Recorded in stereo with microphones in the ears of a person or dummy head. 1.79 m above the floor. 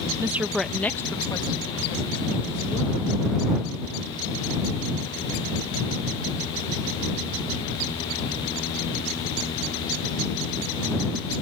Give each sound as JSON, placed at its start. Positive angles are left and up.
{"t": 0.2, "sound": "a woman speaking", "side_deg": -15}